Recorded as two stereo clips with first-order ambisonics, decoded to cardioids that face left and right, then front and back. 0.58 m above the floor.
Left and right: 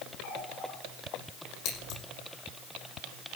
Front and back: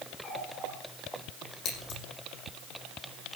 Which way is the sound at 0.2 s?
50° left.